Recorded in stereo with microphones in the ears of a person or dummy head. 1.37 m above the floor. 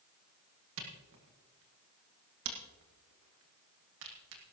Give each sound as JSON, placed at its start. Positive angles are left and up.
{"t": 0.8, "sound": "a camera shutter", "side_deg": -65, "distance_m": 2.0}